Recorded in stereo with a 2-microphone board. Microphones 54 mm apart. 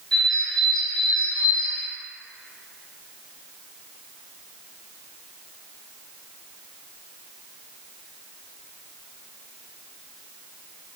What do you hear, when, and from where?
0.1 s a bird: 10° left (ahead or behind), 0.8 m